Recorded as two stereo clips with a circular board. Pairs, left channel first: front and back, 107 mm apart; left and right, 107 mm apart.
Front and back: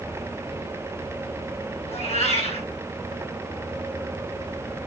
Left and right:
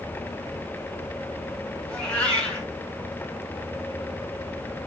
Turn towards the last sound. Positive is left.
turn(degrees=15)